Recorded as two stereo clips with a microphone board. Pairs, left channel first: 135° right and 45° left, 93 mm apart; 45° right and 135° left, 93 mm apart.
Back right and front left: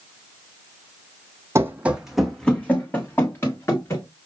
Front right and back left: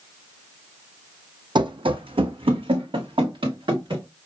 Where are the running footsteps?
105° left, 0.7 m; by 4.0 s 165° left, 1.9 m.